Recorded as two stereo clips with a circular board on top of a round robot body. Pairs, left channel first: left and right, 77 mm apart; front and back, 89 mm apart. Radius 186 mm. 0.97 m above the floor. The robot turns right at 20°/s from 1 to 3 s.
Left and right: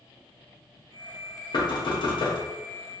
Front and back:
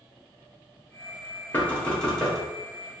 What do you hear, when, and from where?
1.5 s knocking: 70° left, 0.7 m; by 2.4 s 90° left, 0.7 m